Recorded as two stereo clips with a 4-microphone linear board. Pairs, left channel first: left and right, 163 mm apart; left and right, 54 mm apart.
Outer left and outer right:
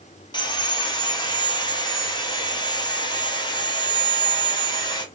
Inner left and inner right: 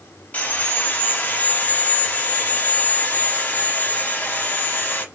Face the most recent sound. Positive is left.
turn(degrees=30)  # may be behind; listen again after turning